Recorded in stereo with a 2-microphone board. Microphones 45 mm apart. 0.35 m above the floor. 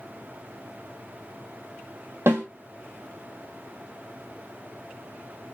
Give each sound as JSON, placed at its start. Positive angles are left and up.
{"t": 2.3, "sound": "a snare drum", "side_deg": -70, "distance_m": 2.5}